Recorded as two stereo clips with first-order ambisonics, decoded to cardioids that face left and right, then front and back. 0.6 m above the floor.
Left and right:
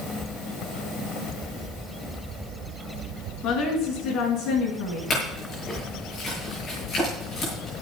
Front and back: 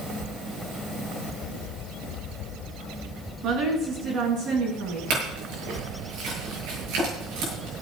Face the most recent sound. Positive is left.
turn(degrees=155)